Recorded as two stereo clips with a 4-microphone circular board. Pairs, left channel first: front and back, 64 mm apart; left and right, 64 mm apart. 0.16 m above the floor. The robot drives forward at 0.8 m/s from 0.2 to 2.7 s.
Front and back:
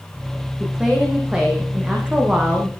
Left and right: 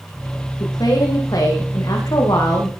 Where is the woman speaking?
100° left, 8.5 m; by 2.7 s 110° left, 9 m.